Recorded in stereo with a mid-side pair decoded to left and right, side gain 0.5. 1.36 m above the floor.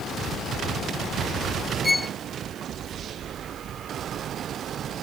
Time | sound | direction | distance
1.8 | a violin | 20° left | ?